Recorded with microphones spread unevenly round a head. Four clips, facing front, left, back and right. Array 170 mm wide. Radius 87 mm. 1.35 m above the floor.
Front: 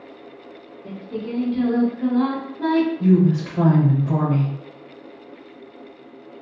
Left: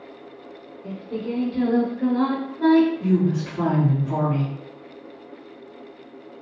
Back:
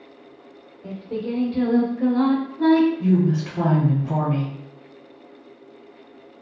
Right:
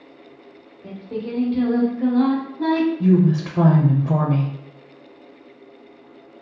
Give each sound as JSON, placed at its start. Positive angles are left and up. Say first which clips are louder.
{"t": 0.8, "sound": "singing", "louder": "even, back 2 dB", "azimuth_deg": 155, "distance_m": 1.1}
{"t": 3.0, "sound": "a woman speaking", "louder": "right 4 dB, front 3 dB", "azimuth_deg": -90, "distance_m": 0.6}